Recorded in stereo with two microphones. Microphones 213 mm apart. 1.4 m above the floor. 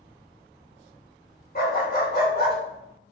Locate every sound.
1.6 s a dog barking: 50° left (ahead or behind), 1.7 m